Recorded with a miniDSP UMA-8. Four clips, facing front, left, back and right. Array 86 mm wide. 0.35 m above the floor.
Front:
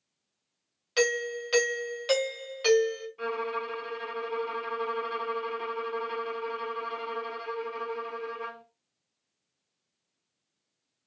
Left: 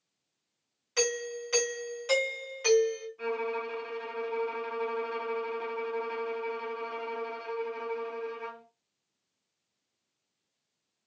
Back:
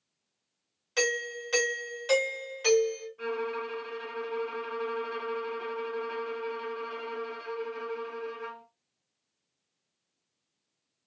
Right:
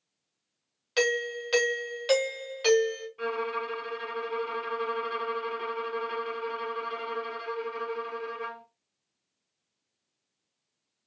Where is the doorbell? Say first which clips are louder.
Right 4 dB, front 4 dB; 55° right, 1.4 m.